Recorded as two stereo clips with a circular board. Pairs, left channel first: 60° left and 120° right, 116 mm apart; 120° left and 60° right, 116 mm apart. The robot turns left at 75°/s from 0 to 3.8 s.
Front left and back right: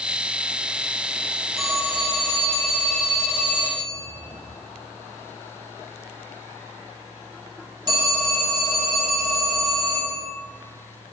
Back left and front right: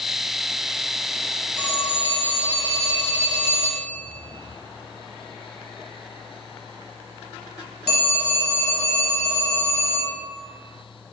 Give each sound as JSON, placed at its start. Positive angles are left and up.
{"t": 1.6, "sound": "a phone ringing", "azimuth_deg": 30, "distance_m": 1.4}